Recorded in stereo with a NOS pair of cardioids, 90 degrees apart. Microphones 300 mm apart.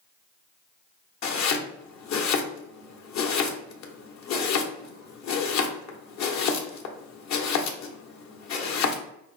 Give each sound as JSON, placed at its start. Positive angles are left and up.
{"t": 1.2, "sound": "chopping", "azimuth_deg": 65, "distance_m": 1.1}